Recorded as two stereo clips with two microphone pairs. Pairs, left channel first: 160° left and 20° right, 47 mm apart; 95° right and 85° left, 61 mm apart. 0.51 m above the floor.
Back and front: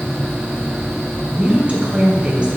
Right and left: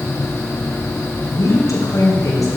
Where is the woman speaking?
85° right, 4 m.